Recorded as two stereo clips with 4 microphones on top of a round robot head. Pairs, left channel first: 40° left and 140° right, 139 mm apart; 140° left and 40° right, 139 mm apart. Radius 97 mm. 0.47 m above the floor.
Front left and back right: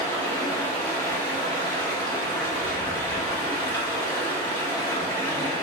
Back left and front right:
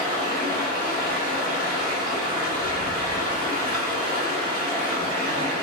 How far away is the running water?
About 2 m.